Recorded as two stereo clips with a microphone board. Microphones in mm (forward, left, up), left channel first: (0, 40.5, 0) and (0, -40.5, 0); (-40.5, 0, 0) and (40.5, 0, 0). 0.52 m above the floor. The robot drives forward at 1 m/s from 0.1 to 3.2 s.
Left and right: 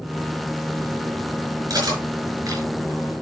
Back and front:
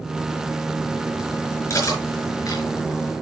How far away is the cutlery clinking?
About 4.5 m.